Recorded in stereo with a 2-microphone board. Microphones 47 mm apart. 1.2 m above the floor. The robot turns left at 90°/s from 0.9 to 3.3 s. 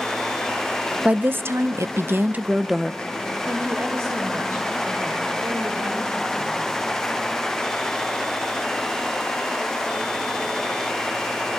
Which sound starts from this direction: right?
A woman speaking, at 3.5 s.